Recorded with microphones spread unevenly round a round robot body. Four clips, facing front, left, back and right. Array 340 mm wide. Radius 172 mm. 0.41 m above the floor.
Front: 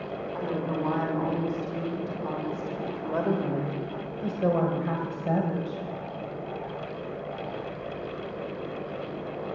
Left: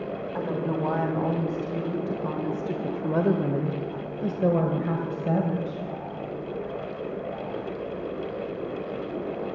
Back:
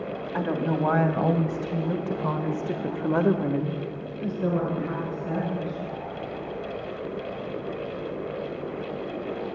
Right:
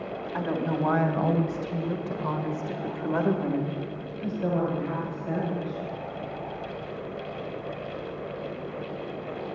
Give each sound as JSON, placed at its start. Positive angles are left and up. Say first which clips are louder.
{"t": 0.3, "sound": "a woman speaking", "louder": "right 1 dB, back 5 dB", "azimuth_deg": -170, "distance_m": 2.5}